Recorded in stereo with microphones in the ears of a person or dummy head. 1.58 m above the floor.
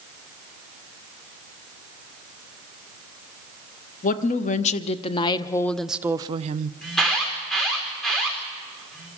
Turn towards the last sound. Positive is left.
turn(degrees=0)  # may be behind; listen again after turning